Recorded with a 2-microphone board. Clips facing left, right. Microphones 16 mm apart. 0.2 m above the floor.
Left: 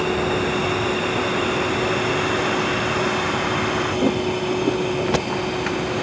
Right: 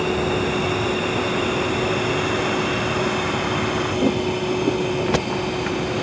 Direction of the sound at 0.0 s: 15° left (ahead or behind).